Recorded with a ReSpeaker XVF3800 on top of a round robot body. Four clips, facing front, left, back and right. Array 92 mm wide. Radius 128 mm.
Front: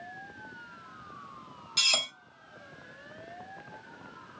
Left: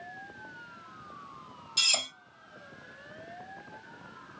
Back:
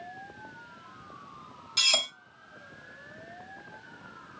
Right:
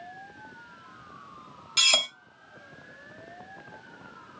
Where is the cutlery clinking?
90° right, 0.7 m.